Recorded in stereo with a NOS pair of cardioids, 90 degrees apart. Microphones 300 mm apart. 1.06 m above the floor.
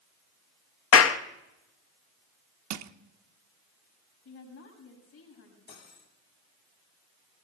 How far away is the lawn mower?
No lawn mower in this recording.